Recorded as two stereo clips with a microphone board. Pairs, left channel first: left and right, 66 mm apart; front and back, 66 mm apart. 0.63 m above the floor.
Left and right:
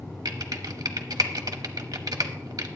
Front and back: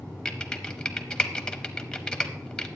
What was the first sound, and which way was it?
Typing on a keyboard, 80° right.